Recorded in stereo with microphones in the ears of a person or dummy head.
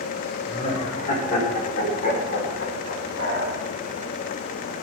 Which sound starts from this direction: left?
Laughter, at 0.5 s.